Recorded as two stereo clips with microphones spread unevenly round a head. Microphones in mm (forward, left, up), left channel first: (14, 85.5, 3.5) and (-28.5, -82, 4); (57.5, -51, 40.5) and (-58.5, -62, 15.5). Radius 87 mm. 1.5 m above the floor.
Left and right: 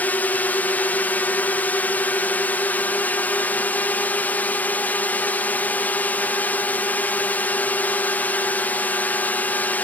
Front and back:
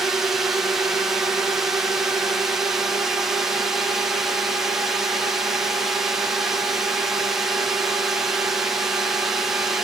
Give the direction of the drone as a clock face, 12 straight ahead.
7 o'clock.